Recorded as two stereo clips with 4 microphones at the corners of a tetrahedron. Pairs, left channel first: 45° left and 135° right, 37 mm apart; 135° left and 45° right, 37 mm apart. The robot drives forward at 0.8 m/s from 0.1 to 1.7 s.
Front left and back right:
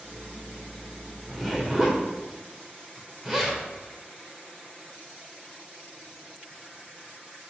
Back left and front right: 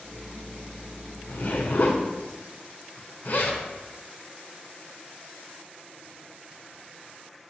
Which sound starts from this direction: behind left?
A zipper, at 1.3 s.